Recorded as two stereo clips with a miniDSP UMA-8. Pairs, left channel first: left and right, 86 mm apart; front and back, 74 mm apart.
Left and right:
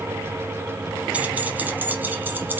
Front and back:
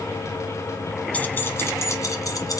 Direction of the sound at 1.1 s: 40° right.